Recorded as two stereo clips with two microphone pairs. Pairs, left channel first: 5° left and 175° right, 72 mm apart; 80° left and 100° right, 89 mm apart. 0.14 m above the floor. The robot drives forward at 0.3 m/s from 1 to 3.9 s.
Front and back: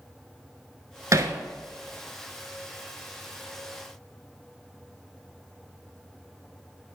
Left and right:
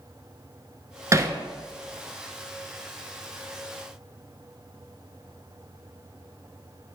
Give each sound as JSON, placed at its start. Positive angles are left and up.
{"t": 1.1, "sound": "hammering", "azimuth_deg": -145, "distance_m": 0.5}